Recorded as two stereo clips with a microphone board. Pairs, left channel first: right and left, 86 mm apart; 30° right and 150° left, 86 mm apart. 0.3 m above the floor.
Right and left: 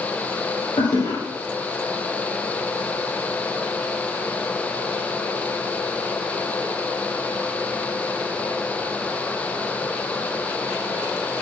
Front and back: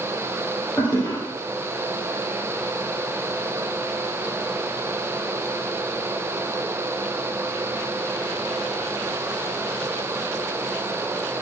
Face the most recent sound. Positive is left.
turn(degrees=-105)